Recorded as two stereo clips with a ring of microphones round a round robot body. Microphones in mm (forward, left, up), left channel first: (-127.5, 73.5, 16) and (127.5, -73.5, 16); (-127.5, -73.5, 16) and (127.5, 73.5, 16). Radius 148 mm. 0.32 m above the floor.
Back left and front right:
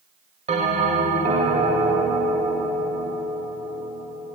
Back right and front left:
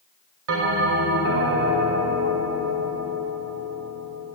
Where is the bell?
30° left, 1.6 m.